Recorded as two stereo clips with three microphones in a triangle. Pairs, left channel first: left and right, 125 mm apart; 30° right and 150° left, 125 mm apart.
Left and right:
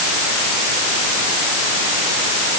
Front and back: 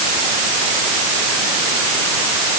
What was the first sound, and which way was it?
Only background noise.